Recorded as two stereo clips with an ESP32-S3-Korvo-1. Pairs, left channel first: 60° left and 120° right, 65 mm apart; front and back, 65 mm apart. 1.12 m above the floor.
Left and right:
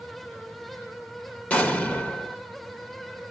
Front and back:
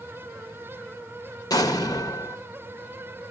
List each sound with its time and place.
1.5 s an explosion: 5° right, 1.2 m